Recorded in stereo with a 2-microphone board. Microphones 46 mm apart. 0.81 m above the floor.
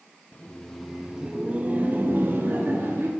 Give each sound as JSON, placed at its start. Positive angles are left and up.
{"t": 0.3, "sound": "laughter", "side_deg": 25, "distance_m": 0.6}